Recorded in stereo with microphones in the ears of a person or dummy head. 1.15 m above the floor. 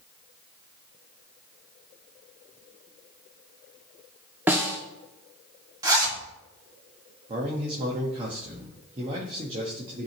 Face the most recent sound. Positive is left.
turn(degrees=-30)  # may be behind; listen again after turning